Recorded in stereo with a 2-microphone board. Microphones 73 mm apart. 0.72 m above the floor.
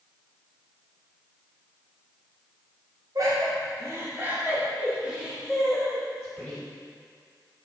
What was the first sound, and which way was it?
Laughter, 55° right (ahead or behind).